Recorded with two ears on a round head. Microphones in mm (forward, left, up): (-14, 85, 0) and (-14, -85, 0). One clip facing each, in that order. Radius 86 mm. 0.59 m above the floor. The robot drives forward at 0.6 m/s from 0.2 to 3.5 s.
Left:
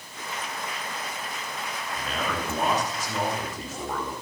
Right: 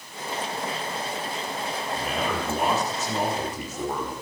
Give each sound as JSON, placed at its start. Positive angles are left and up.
{"t": 1.9, "sound": "a man speaking", "side_deg": -5, "distance_m": 3.0}